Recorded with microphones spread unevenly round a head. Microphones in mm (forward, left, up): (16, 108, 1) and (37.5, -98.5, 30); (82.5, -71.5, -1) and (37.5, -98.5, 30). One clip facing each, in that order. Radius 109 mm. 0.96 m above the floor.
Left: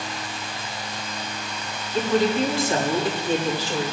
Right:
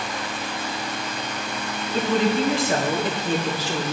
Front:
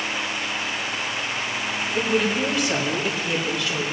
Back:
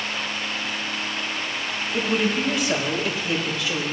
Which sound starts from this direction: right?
A woman speaking, at 1.9 s.